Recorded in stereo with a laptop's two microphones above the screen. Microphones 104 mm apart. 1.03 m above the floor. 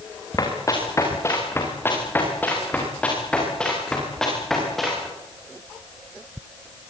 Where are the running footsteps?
35° left (ahead or behind), 6 m; by 5.1 s centre (ahead or behind), 9 m.